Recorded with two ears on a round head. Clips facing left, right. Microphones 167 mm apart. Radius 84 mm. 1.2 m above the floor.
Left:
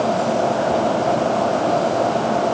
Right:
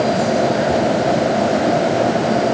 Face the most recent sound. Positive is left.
No sound to turn to.